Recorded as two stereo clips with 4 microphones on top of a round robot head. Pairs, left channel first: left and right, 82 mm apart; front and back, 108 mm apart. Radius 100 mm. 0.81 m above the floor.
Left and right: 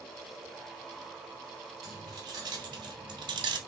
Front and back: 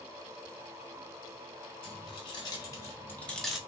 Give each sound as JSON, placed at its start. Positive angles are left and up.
{"t": 1.8, "sound": "keys jangling", "azimuth_deg": -45, "distance_m": 1.6}